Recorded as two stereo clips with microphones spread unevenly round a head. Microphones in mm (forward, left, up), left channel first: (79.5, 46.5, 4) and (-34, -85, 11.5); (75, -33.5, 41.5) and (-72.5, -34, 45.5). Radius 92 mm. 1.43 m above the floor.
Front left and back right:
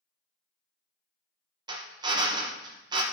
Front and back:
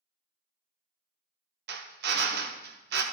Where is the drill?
160° left, 1.2 m.